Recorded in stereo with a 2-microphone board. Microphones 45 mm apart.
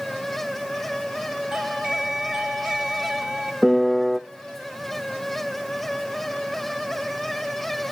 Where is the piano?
Centre (ahead or behind), 0.6 m.